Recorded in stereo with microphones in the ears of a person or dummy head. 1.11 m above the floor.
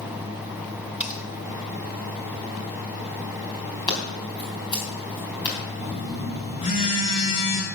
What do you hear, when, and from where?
1.0 s cutlery clinking: 5° right (ahead or behind), 0.7 m
3.9 s scissors: 25° left (ahead or behind), 3.5 m
5.8 s a phone buzzing: 30° left (ahead or behind), 2 m